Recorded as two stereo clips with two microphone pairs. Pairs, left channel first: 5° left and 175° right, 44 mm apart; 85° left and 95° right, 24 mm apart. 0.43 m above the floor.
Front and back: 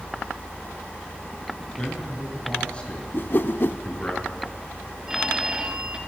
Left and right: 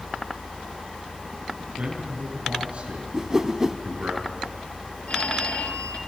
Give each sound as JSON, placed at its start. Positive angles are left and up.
{"t": 1.7, "sound": "a man speaking", "azimuth_deg": -70, "distance_m": 6.0}
{"t": 3.1, "sound": "a whoosh", "azimuth_deg": -30, "distance_m": 0.5}
{"t": 5.1, "sound": "a phone ringing", "azimuth_deg": 105, "distance_m": 1.6}